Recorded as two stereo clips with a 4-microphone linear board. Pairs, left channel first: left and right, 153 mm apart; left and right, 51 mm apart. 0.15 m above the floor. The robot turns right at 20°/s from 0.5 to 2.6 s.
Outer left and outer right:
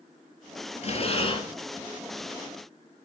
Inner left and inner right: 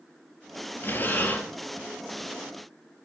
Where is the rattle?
No rattle in this recording.